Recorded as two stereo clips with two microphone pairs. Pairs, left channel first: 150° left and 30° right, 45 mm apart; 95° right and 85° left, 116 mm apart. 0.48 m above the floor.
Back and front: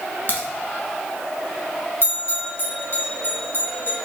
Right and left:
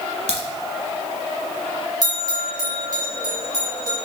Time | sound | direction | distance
0.3 | a crack | 105° left | 1.3 m
2.0 | a bell | 135° left | 1.8 m